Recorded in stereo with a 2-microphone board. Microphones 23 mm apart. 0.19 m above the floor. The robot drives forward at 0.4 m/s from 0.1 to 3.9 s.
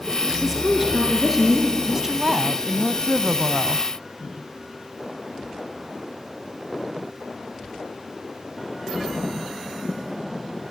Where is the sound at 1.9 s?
25° right (ahead or behind), 1.2 m.